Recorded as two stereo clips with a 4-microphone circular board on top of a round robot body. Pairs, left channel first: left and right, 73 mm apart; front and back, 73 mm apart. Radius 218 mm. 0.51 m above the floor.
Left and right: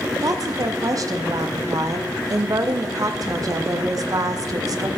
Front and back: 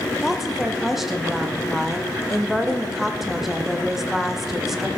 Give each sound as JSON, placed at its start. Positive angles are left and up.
{"t": 0.2, "sound": "a woman speaking", "azimuth_deg": -95, "distance_m": 0.8}